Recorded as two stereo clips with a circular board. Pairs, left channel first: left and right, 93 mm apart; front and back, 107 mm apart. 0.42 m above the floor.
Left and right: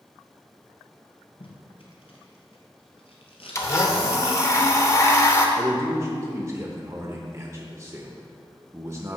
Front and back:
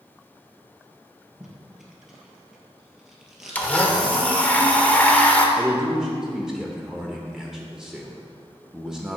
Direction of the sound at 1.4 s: 95° left.